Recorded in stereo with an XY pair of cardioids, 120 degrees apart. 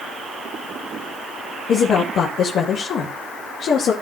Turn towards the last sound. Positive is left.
turn(degrees=55)